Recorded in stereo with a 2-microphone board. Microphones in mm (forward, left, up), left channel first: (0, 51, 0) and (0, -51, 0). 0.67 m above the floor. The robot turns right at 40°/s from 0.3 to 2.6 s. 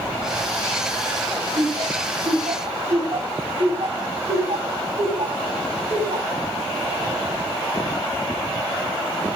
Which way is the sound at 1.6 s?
55° right (ahead or behind).